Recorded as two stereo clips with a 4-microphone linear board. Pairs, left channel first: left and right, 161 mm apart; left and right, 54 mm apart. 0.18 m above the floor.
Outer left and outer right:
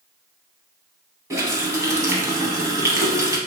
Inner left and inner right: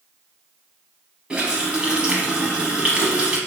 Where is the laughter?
I don't hear laughter.